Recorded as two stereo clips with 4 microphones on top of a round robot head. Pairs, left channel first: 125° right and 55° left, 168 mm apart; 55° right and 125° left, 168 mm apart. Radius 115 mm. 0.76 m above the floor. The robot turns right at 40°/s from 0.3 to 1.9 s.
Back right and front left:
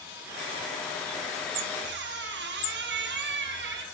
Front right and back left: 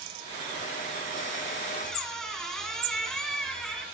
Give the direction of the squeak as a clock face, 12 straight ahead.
11 o'clock.